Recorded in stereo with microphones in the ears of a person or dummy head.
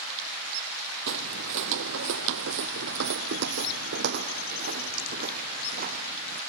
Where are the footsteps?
60° right (ahead or behind); by 6.4 s 40° right (ahead or behind).